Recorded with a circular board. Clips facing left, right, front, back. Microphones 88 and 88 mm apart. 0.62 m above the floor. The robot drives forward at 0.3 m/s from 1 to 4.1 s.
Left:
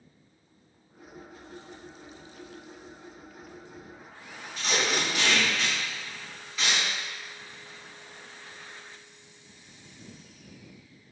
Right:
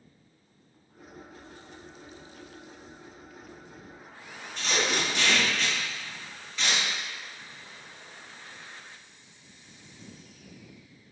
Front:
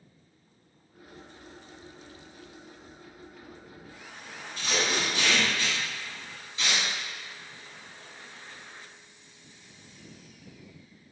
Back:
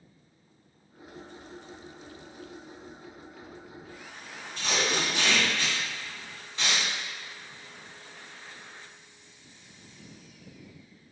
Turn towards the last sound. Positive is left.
turn(degrees=175)